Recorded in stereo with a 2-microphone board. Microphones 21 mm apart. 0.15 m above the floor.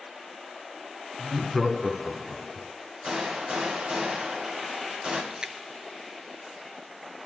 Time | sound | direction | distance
1.2 | laughter | 10° right (ahead or behind) | 1.5 m
3.0 | a gunshot | 55° right (ahead or behind) | 7 m
5.3 | a splash | 40° right (ahead or behind) | 1.1 m